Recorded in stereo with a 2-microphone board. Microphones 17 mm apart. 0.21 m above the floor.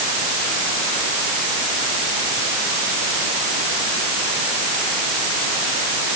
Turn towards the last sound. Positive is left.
No sound to turn to.